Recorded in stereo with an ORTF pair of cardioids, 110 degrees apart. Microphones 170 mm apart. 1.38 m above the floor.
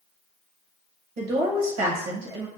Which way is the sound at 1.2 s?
60° right.